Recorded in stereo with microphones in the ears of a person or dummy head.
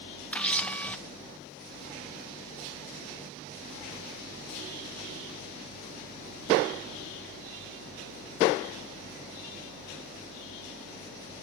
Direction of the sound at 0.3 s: 5° left (ahead or behind).